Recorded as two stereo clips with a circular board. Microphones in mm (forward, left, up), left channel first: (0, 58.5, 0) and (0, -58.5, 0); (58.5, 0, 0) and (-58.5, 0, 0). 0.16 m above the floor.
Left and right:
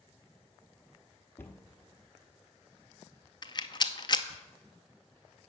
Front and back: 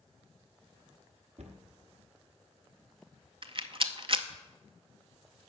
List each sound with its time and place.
1.4 s a cupboard door: 160° left, 1.1 m
3.4 s a rattle: 140° left, 0.6 m